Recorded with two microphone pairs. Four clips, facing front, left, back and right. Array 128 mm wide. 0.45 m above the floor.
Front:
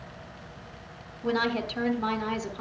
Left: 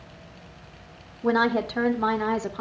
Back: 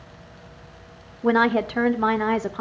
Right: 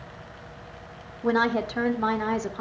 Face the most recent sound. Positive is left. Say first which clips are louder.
# left 1 dB, back 8 dB
turn(degrees=170)